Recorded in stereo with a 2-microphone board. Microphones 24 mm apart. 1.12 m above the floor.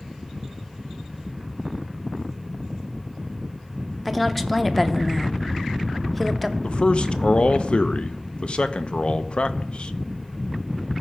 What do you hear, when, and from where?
4.0 s a woman speaking: 10° left (ahead or behind), 0.7 m
6.6 s a man speaking: 55° left (ahead or behind), 0.5 m